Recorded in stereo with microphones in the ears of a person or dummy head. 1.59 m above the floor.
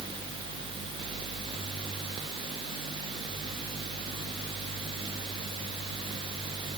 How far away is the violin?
I don't hear a violin.